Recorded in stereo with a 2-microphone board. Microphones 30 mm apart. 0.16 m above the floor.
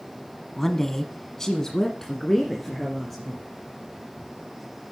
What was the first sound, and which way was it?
A woman speaking, 15° left (ahead or behind).